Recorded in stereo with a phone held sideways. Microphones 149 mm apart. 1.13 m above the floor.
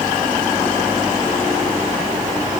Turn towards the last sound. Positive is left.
No sound to turn to.